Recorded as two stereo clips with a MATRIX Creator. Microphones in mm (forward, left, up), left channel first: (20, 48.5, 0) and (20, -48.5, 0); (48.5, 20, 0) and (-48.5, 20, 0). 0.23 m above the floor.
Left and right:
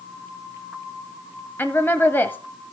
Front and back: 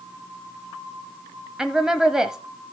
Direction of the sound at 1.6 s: 105° left.